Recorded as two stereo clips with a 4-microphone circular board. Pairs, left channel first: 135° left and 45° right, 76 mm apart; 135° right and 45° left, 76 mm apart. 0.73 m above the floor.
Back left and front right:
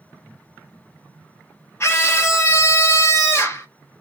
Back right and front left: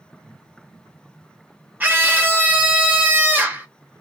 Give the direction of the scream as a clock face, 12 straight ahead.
9 o'clock.